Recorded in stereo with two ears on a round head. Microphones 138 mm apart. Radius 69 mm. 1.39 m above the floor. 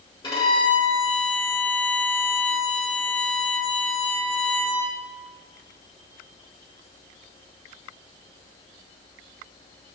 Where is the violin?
30° left (ahead or behind), 1.9 m.